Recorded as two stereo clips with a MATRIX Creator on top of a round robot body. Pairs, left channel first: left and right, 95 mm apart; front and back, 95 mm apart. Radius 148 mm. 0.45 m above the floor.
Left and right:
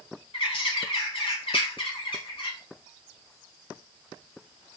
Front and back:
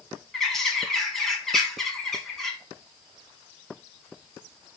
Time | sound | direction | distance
0.3 | a bird | 85° left | 2.5 m